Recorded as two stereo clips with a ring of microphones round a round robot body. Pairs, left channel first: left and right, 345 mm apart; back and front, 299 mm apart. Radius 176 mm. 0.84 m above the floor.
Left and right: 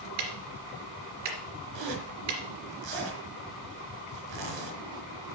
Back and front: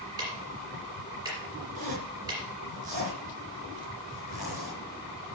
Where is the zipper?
70° right, 3.5 m.